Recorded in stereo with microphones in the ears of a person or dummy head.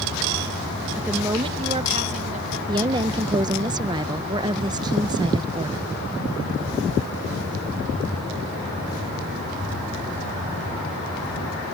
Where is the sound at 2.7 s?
20° right (ahead or behind).